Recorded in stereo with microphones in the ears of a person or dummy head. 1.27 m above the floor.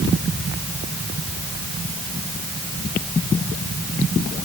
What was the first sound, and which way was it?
Only background noise.